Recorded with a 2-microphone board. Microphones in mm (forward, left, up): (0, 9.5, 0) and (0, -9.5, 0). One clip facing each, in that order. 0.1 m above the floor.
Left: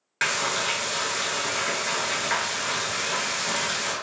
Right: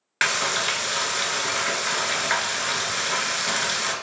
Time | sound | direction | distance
0.2 | frying | 25° right (ahead or behind) | 0.5 m